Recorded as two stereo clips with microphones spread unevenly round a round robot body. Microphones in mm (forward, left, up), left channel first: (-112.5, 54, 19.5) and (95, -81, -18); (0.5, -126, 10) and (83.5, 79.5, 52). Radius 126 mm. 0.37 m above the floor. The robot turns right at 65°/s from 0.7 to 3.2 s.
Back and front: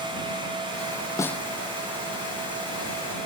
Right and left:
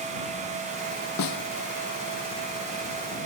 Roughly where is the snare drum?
Behind right.